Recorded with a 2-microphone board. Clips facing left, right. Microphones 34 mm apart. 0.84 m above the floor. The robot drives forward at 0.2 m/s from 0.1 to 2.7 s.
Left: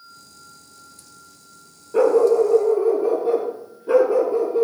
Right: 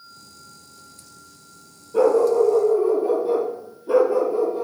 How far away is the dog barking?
About 4.5 m.